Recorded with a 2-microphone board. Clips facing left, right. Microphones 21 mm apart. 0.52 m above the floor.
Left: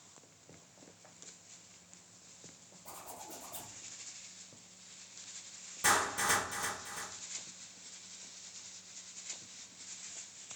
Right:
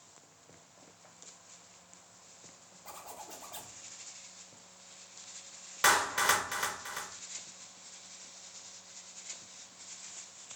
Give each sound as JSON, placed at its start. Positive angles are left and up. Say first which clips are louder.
{"t": 2.9, "sound": "a zipper", "louder": "right 2 dB", "side_deg": -25, "distance_m": 0.7}
{"t": 5.8, "sound": "a clap", "louder": "right 4 dB", "side_deg": -55, "distance_m": 0.7}